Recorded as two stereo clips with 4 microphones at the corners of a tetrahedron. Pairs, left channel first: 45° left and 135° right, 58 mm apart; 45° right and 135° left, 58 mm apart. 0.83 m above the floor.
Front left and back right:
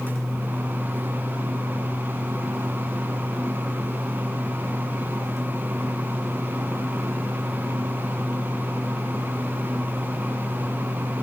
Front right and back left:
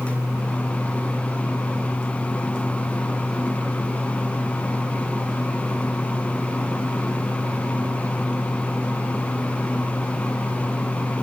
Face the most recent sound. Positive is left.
No sound to turn to.